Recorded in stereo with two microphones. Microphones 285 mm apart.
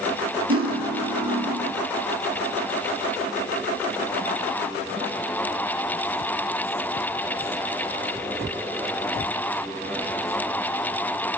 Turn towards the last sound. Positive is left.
turn(degrees=-55)  # may be behind; listen again after turning